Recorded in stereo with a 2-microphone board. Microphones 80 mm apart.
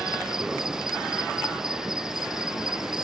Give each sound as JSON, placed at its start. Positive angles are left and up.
{"t": 0.0, "sound": "an insect", "side_deg": -5}